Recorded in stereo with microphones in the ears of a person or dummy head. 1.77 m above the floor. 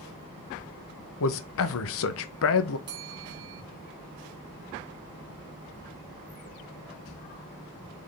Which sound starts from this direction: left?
A man speaking, at 1.2 s.